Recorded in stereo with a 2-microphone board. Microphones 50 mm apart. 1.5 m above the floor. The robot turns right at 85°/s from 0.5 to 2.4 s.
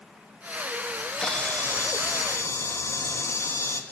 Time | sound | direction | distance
0.9 | a camera shutter | 15° right | 2.5 m